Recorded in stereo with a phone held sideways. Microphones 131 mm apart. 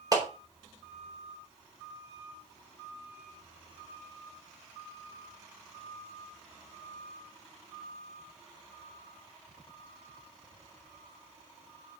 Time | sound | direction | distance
0.1 | a clap | 30° right (ahead or behind) | 4 m